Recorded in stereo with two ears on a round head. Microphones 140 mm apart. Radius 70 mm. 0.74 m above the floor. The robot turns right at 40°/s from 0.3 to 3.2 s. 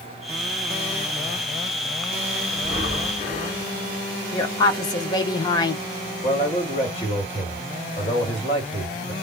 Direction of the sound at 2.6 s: 65° left (ahead or behind).